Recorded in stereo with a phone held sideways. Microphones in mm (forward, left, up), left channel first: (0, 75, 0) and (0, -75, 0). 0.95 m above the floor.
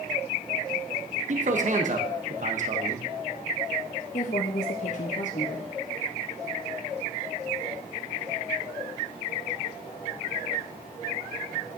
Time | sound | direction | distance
1.3 | a man speaking | 55° right (ahead or behind) | 0.8 m
4.1 | a woman speaking | 55° left (ahead or behind) | 0.7 m